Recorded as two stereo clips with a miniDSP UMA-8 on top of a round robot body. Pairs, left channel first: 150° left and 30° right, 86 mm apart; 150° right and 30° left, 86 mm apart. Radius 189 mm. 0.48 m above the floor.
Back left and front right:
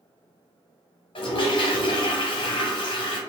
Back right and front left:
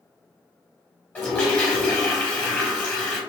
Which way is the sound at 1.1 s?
135° left.